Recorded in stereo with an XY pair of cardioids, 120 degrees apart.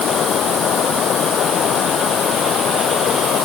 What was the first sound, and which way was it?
Running water, 55° left.